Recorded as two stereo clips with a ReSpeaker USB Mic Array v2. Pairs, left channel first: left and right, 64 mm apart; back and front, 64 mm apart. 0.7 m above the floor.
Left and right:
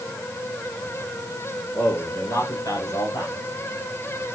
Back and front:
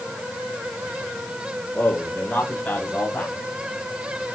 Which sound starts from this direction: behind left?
A man speaking, at 1.8 s.